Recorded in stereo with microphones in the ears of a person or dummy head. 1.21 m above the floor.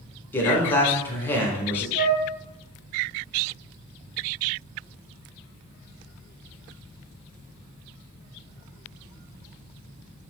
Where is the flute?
30° right (ahead or behind), 1.5 m.